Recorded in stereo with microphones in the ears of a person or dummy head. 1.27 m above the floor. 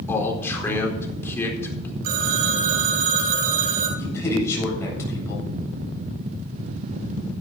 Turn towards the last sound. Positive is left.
turn(degrees=15)  # may be behind; listen again after turning